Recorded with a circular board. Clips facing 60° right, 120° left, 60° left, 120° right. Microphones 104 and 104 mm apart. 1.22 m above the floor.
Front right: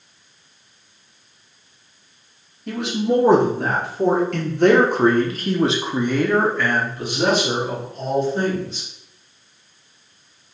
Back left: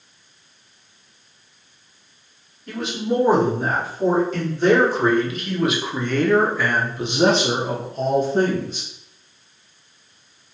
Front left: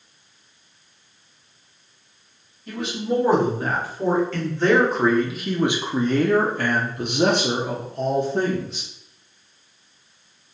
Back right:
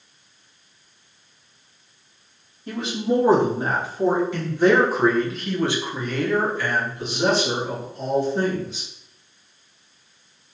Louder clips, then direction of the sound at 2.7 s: Front right 3 dB, back right 2 dB; 60° right.